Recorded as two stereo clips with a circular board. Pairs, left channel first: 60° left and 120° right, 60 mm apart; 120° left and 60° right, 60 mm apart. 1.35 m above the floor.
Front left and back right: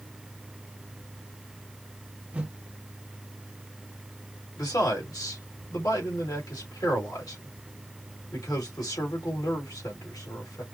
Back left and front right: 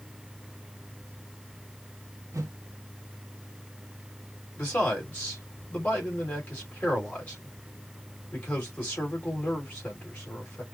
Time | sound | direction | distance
2.3 | a whoosh | 55° right | 1.1 m
4.6 | a man speaking | 60° left | 2.5 m